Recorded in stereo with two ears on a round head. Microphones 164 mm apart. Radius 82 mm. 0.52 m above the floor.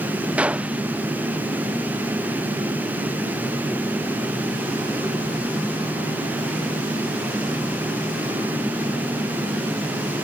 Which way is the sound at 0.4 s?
5° right (ahead or behind).